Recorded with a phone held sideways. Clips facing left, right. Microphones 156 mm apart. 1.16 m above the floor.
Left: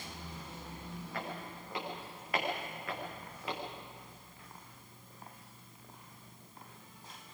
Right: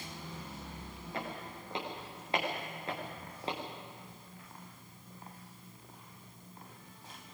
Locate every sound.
1.1 s footsteps: 25° right (ahead or behind), 8.5 m; by 3.6 s 30° right (ahead or behind), 5.5 m